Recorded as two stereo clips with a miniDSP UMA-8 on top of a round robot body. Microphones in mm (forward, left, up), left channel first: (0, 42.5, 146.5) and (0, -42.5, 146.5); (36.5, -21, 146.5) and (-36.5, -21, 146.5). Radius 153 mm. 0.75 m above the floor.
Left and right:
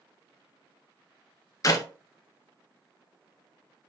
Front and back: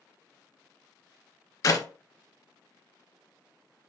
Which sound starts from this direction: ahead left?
A clap, at 1.6 s.